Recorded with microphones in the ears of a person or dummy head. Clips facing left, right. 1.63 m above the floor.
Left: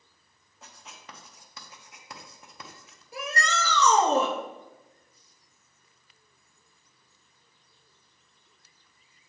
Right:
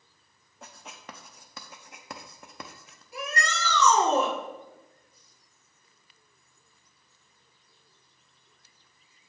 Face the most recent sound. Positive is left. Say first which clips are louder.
# left 2 dB
turn(degrees=85)